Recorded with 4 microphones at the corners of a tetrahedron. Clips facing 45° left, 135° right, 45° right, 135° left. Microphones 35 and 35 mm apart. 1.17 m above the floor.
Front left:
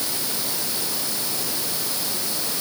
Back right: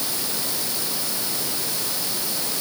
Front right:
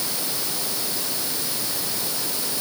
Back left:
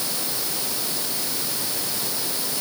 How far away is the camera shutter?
No camera shutter in this recording.